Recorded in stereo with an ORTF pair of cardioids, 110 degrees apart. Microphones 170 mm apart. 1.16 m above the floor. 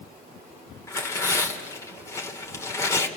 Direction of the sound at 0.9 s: 15° left.